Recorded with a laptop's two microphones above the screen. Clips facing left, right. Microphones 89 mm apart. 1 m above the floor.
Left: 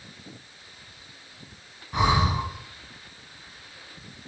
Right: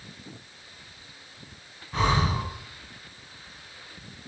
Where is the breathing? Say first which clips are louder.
Left 2 dB; 15° left (ahead or behind), 1.5 m.